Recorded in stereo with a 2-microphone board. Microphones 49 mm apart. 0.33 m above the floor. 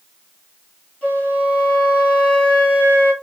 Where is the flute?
35° left (ahead or behind), 3 m.